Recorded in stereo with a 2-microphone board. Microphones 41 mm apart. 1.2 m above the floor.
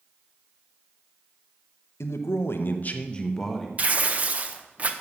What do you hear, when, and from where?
2.0 s a man speaking: 85° left, 0.9 m; by 3.7 s centre (ahead or behind), 1.1 m
3.8 s tearing paper: 35° right (ahead or behind), 0.7 m